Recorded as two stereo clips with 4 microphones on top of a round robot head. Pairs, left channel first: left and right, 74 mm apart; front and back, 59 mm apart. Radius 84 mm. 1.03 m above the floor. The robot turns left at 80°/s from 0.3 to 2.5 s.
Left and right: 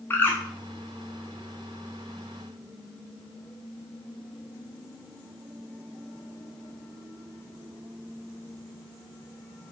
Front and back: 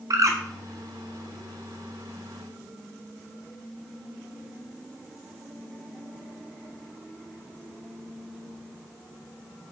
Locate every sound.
0.1 s a bird: 160° left, 1.3 m; by 0.4 s 150° left, 1.3 m